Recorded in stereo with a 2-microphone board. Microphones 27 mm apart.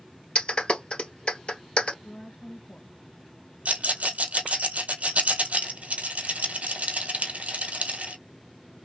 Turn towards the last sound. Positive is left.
turn(degrees=-65)  # may be behind; listen again after turning